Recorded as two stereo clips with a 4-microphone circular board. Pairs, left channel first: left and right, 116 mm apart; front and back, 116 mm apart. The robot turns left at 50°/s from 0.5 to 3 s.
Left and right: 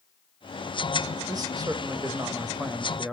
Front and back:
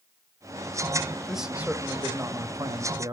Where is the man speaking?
90° right, 1.0 m; by 3.1 s straight behind, 1.0 m.